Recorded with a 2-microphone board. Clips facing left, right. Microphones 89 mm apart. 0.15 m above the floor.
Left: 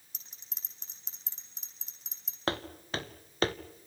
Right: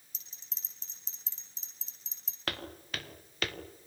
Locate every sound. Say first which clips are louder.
0.1 s a bell: left 2 dB; 60° left (ahead or behind), 9 m
2.5 s footsteps: left 5 dB; 30° left (ahead or behind), 3 m; by 3.5 s 35° left (ahead or behind), 1.8 m